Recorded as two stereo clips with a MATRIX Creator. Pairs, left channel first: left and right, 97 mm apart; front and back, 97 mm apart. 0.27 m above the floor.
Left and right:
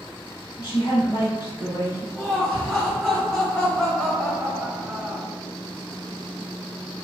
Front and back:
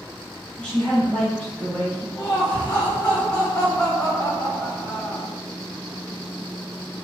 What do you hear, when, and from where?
0.6 s a woman speaking: 70° left, 1.4 m
2.1 s laughter: 20° left, 1.2 m